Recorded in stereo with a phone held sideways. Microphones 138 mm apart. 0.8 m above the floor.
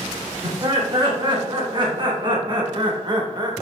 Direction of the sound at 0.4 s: 35° right (ahead or behind).